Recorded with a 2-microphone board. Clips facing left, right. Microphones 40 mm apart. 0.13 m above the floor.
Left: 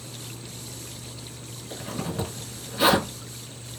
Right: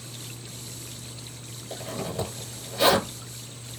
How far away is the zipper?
About 2 m.